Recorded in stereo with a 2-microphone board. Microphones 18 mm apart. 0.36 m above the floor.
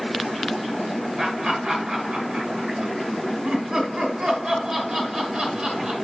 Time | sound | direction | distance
1.2 | laughter | 40° right (ahead or behind) | 5.5 m